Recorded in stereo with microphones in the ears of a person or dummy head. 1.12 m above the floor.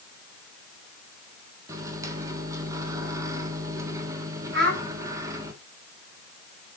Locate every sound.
1.7 s a microwave: 15° right (ahead or behind), 2.5 m
4.5 s a child speaking: 60° right (ahead or behind), 4.5 m